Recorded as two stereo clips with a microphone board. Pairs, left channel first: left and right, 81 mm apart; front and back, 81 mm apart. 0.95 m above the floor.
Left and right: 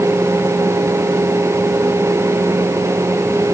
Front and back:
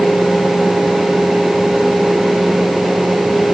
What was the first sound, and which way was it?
Only background noise.